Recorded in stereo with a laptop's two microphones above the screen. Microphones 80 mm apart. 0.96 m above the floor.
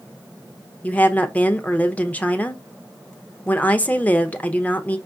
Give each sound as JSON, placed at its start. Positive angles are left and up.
{"t": 0.8, "sound": "a woman speaking", "side_deg": 20, "distance_m": 0.8}